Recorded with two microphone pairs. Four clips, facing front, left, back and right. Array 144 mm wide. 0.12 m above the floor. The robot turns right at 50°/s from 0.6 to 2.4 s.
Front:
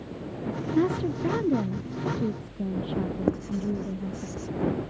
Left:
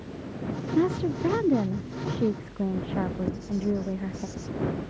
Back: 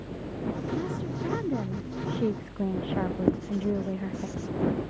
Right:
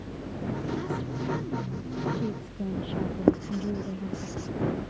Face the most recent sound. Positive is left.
turn(degrees=-75)